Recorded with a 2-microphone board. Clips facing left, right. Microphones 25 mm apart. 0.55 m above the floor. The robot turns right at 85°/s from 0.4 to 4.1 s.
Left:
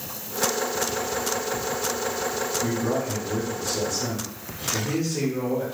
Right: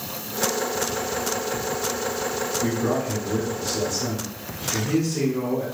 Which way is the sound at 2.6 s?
115° right.